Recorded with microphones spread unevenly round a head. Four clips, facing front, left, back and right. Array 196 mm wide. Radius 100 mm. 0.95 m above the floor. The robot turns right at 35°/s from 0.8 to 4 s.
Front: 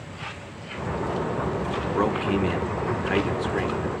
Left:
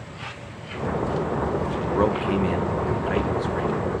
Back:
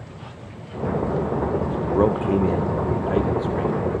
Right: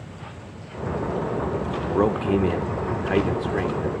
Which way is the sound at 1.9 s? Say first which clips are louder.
Right 2 dB, back 5 dB; 165° right.